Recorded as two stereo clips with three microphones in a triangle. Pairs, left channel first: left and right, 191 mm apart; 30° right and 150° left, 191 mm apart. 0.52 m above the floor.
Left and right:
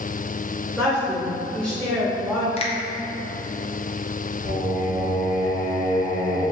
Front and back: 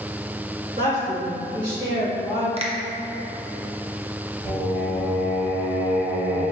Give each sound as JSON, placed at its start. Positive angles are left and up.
{"t": 0.8, "sound": "a woman speaking", "azimuth_deg": 170, "distance_m": 2.0}
{"t": 2.6, "sound": "a finger snap", "azimuth_deg": 120, "distance_m": 0.6}
{"t": 4.4, "sound": "singing", "azimuth_deg": 100, "distance_m": 1.5}